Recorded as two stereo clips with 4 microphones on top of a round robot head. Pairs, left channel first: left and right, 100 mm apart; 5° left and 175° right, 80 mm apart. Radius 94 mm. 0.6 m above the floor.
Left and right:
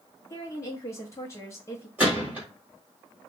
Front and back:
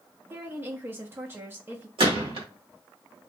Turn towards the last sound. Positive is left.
turn(degrees=-165)